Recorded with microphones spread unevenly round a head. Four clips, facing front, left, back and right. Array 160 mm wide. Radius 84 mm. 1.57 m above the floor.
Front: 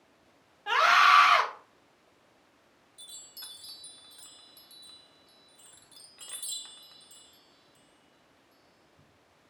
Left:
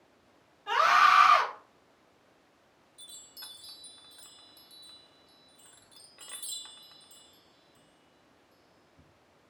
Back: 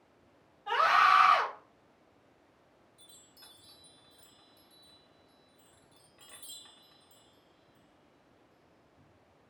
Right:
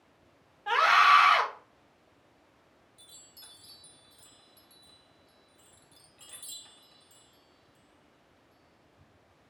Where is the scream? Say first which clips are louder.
Right 1 dB, front 3 dB; 25° right, 2 m.